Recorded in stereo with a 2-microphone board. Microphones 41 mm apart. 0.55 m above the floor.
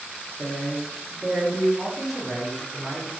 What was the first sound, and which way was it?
A woman speaking, 35° right (ahead or behind).